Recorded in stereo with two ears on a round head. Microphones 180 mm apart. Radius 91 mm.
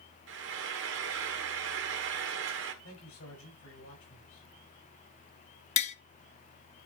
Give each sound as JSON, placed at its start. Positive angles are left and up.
{"t": 0.3, "sound": "frying", "side_deg": -65, "distance_m": 1.6}
{"t": 2.8, "sound": "a man speaking", "side_deg": 85, "distance_m": 7.0}
{"t": 5.8, "sound": "tapping", "side_deg": 35, "distance_m": 0.6}